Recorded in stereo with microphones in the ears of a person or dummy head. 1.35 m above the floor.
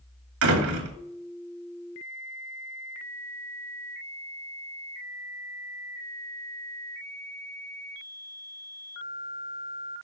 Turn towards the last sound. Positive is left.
turn(degrees=-80)